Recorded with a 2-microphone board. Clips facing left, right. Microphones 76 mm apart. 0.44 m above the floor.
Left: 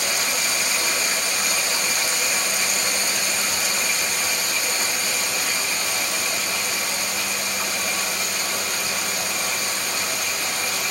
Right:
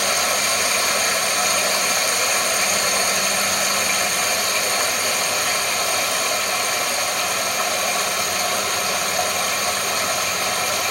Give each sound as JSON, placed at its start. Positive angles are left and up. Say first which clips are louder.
{"t": 0.0, "sound": "running water", "louder": "right 5 dB", "side_deg": -65, "distance_m": 0.8}